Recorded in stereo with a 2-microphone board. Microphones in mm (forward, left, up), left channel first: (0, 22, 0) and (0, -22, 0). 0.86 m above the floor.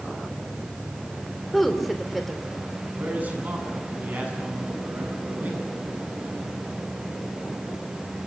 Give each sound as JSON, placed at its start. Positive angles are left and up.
{"t": 1.5, "sound": "a woman speaking", "side_deg": 0, "distance_m": 3.0}
{"t": 3.0, "sound": "a man speaking", "side_deg": -40, "distance_m": 9.0}